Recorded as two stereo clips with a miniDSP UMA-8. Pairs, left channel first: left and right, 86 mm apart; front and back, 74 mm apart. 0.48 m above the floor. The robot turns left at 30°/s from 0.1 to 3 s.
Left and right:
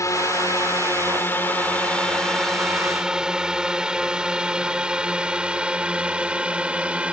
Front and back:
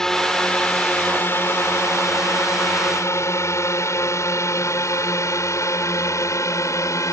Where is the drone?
80° left; by 7.1 s 20° right.